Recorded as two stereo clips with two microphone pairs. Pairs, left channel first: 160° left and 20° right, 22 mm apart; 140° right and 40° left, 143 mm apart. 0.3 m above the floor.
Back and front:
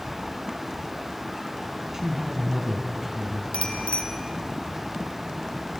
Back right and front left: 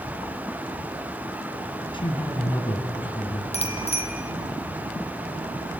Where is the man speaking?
90° right, 2.5 m.